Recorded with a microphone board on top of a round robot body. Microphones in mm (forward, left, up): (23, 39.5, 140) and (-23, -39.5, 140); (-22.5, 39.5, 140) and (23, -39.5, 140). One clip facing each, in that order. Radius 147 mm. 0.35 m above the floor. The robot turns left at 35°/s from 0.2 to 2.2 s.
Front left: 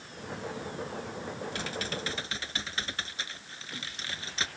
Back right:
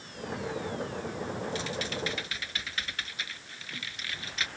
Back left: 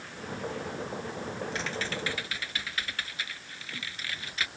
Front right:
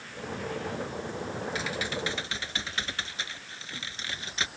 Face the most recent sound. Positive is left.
turn(degrees=5)